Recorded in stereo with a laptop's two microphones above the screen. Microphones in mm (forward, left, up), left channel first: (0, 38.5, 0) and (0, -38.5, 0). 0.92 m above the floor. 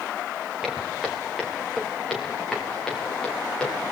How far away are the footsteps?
About 3.5 m.